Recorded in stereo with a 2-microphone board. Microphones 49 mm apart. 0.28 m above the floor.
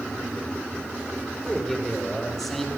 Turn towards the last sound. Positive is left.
turn(degrees=5)  # may be behind; listen again after turning